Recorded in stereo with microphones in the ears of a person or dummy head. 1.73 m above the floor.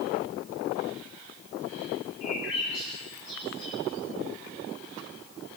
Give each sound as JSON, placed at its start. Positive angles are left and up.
{"t": 2.2, "sound": "a bird", "side_deg": 70, "distance_m": 9.5}